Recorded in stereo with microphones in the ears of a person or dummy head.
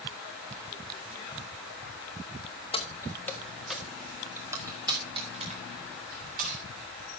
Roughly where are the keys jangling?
Left.